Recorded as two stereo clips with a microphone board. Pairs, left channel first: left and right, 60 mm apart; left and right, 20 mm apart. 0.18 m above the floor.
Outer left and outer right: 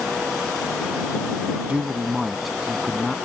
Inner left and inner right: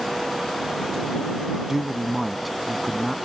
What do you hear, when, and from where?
1.7 s a man speaking: 20° right (ahead or behind); by 3.1 s 10° left (ahead or behind)